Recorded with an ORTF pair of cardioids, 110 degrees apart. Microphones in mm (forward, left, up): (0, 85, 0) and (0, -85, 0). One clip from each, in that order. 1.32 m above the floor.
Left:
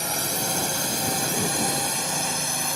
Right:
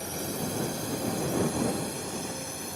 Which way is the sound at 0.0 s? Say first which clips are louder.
Left 7 dB; 65° left.